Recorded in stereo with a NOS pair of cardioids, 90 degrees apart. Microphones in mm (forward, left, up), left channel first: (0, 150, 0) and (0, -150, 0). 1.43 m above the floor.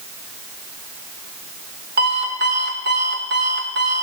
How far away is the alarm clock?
About 2.5 m.